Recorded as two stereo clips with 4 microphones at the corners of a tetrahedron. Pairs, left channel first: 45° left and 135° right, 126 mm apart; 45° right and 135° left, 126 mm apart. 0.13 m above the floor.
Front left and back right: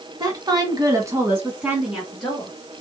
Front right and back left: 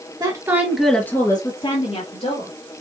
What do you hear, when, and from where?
0.2 s a woman speaking: straight behind, 1.7 m; by 2.5 s 45° right, 2.5 m